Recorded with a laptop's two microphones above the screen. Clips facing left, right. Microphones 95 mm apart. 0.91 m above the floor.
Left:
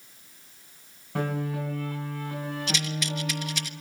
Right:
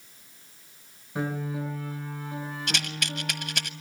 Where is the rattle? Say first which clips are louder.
Left 2 dB; 60° right (ahead or behind), 1.2 m.